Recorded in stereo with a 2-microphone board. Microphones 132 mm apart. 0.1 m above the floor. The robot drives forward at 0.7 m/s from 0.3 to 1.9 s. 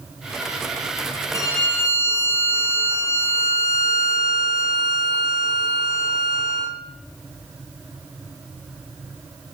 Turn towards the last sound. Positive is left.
turn(degrees=15)  # may be behind; listen again after turning